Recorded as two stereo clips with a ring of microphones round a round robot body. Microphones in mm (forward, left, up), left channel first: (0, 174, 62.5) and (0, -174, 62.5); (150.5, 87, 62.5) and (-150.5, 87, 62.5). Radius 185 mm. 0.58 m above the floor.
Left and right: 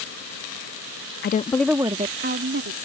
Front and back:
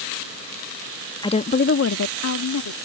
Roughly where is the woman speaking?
Ahead left.